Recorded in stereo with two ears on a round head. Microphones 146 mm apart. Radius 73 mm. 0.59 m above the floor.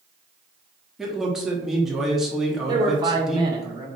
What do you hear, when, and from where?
1.0 s a man speaking: centre (ahead or behind), 0.9 m
2.7 s a man speaking: 30° right (ahead or behind), 1.1 m